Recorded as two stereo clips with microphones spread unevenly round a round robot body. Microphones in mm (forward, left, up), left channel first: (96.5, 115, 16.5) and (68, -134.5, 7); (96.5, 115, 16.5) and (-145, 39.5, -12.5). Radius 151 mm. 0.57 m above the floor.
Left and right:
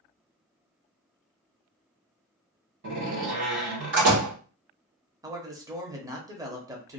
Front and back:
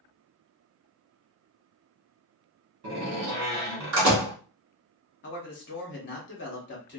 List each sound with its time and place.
2.8 s a door slam: 140° right, 1.3 m
5.2 s a man speaking: 25° right, 0.9 m